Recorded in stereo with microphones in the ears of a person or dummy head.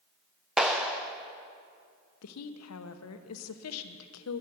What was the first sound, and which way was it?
A clap, centre (ahead or behind).